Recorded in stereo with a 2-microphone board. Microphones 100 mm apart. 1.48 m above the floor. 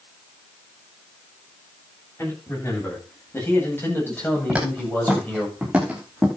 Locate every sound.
2.2 s a man speaking: 25° left (ahead or behind), 10 m; by 5.5 s 15° left (ahead or behind), 8.5 m
4.5 s footsteps: 10° right (ahead or behind), 10 m